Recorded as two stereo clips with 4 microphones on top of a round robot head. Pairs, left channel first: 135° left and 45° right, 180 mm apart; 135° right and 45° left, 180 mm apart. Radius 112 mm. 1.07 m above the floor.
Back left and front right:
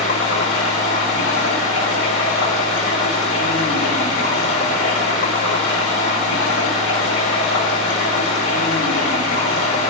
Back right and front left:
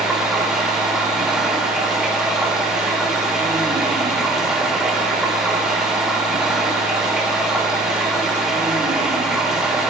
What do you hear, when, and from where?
0.0 s running water: 135° left, 2.5 m